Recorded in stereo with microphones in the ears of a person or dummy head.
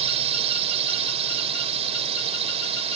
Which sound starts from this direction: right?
A drone, at 0.0 s.